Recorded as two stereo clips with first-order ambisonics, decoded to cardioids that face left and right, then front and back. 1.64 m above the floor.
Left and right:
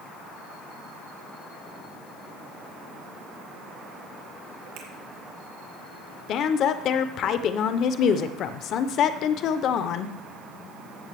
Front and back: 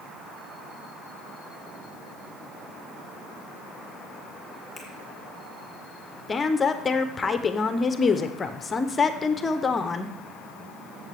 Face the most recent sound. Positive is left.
turn(degrees=65)